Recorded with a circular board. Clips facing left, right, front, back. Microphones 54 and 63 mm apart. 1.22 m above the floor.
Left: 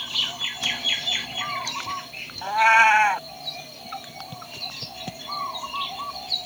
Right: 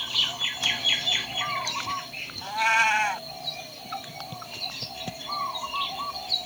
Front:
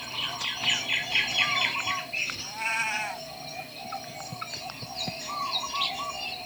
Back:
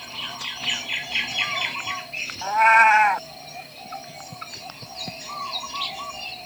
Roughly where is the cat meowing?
Behind left.